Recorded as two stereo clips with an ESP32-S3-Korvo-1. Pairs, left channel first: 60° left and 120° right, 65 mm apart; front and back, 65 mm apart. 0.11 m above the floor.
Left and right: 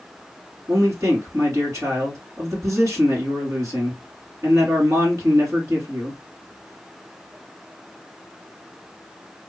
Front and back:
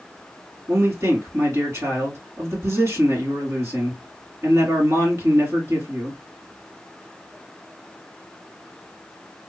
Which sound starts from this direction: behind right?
A man speaking, at 0.7 s.